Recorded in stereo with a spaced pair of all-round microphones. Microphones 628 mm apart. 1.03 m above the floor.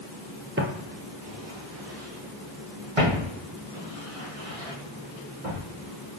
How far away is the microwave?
No microwave in this recording.